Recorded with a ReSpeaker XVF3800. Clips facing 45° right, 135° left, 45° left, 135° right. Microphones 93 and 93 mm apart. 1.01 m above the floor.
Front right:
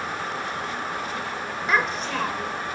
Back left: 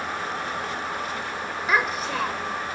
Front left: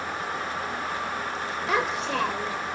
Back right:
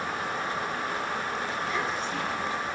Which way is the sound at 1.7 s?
50° left.